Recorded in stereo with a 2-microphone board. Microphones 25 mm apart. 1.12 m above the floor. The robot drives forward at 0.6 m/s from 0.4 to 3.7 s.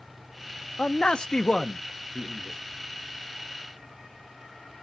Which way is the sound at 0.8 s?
40° left (ahead or behind).